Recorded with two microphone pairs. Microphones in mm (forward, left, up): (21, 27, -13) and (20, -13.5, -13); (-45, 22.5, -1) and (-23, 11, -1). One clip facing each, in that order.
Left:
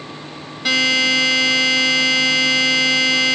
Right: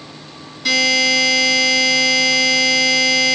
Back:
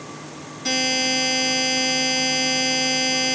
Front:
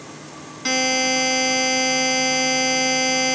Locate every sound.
0.7 s a buzzer: 35° left, 1.8 m